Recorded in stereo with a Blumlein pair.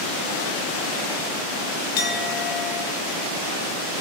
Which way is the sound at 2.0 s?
50° left.